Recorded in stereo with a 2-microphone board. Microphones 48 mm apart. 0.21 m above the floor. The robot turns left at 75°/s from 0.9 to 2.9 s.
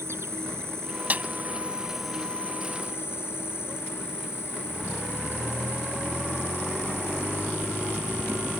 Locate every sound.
0.0 s an insect: 95° right; by 8.6 s 115° left
1.1 s a snare drum: 35° right (ahead or behind)